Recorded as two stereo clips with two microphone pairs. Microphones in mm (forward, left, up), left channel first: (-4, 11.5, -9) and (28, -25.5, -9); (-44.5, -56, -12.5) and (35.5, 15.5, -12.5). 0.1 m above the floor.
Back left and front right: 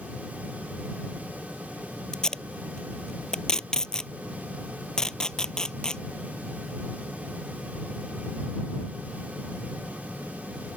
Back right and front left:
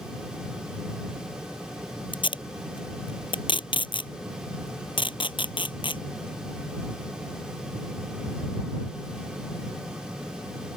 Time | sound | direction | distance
2.1 | tape being pulled | 155° right | ?